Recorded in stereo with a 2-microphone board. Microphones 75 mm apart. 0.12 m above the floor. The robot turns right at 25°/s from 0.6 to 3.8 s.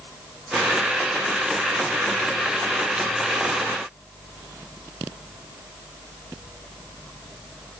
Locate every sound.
Only background noise.